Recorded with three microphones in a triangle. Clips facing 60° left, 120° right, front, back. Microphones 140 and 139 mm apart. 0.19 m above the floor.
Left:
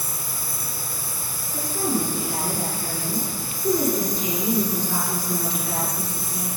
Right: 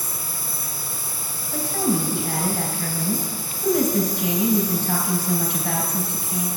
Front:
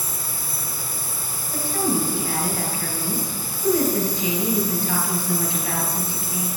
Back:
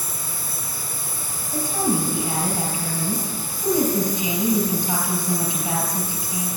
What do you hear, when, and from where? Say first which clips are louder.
0.0 s an insect: even, even; 75° left, 1.6 m
1.5 s a woman speaking: right 2 dB, even; 105° right, 3 m